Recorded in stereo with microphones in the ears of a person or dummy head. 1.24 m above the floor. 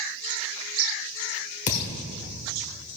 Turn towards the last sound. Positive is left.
turn(degrees=35)  # may be behind; listen again after turning